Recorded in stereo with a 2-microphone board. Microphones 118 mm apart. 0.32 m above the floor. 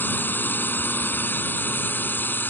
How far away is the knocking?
No knocking in this recording.